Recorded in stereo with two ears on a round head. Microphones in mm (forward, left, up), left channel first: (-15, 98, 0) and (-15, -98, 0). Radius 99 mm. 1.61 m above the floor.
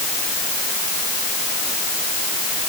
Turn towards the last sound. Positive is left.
No sound to turn to.